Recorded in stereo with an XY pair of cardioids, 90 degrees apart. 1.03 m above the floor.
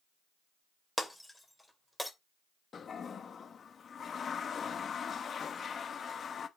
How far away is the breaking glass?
About 2.5 m.